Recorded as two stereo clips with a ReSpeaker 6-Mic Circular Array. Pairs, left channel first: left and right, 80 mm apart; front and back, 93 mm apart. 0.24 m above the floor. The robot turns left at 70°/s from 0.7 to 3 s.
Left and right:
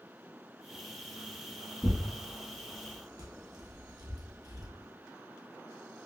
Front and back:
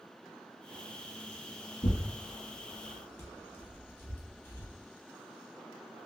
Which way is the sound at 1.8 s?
15° left.